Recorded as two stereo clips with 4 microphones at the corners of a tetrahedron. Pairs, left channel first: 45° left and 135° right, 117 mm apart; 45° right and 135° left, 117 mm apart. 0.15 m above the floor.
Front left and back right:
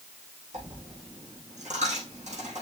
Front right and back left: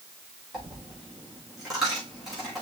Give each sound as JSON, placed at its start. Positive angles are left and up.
{"t": 0.5, "sound": "a dropped coin", "azimuth_deg": -140, "distance_m": 5.5}